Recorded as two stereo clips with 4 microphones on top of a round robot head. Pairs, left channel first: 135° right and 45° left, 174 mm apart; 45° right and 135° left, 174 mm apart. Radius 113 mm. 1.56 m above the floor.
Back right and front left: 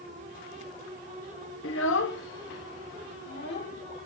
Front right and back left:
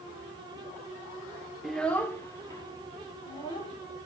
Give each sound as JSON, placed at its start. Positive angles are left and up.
{"t": 1.6, "sound": "a child speaking", "azimuth_deg": -135, "distance_m": 0.5}